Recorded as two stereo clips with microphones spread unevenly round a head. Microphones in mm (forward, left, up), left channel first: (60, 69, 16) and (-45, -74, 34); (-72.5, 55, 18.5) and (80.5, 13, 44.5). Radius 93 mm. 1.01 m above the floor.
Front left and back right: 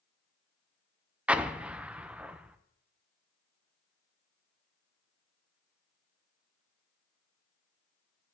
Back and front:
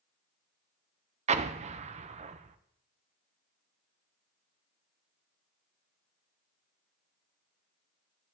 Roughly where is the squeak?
No squeak in this recording.